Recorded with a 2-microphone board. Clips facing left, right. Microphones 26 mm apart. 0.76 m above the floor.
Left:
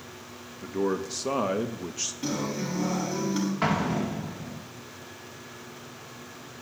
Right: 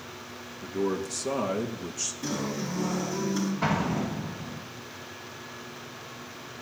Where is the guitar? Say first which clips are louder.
Left 2 dB; 45° left (ahead or behind), 4.5 m.